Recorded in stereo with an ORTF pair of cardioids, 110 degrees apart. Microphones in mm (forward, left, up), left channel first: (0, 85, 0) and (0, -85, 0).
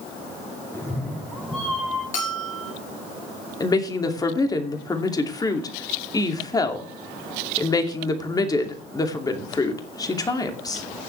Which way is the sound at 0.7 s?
15° left.